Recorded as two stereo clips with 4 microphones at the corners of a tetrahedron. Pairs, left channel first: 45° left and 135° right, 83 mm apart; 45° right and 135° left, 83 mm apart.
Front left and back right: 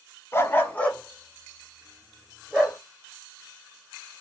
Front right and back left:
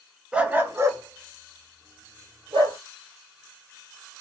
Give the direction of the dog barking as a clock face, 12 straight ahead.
10 o'clock.